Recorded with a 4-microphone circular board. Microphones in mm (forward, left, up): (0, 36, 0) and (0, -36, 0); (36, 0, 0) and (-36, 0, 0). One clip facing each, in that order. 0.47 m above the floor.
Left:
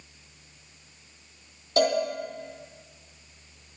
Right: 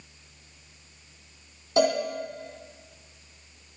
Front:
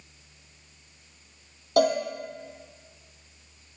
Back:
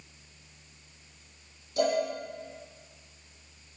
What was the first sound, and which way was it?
A cowbell, 10° right.